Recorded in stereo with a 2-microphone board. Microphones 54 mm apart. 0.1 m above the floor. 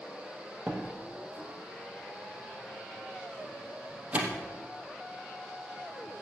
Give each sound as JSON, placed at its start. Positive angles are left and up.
{"t": 0.7, "sound": "a door slam", "side_deg": -25, "distance_m": 2.5}